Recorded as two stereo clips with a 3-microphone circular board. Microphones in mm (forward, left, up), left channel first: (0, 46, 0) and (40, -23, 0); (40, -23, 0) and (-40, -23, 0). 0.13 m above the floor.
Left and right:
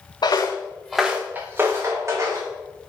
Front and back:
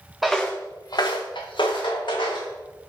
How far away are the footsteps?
About 0.6 m.